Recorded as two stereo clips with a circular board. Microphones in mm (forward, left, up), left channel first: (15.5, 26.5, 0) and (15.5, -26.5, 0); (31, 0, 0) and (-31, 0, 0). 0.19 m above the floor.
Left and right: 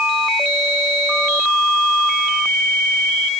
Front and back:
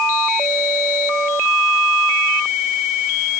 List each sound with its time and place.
Only background noise.